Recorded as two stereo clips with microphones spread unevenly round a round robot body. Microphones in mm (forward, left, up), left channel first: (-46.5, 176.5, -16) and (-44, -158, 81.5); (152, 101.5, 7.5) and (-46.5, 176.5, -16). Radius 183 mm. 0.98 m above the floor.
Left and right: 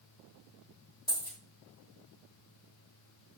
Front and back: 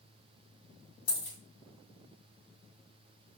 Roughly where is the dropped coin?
Ahead.